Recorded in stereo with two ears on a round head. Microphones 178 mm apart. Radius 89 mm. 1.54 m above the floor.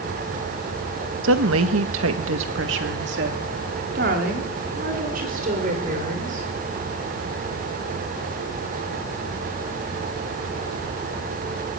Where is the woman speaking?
70° right (ahead or behind), 1.5 m; by 6.5 s 40° right (ahead or behind), 5.5 m.